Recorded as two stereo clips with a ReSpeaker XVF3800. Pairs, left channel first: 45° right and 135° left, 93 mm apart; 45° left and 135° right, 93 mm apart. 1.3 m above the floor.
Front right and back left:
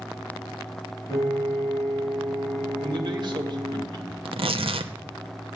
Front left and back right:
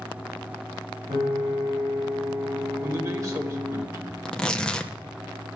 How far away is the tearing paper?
About 0.8 m.